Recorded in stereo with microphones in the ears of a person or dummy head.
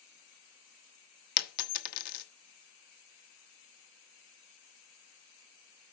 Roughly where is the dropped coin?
Left.